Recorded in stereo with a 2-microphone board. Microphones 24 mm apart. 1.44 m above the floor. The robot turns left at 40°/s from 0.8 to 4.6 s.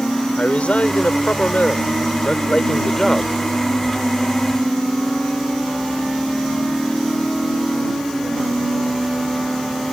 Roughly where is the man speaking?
Left.